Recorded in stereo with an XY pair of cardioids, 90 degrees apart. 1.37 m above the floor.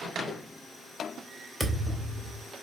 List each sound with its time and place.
1.6 s a thud: 5° right, 3 m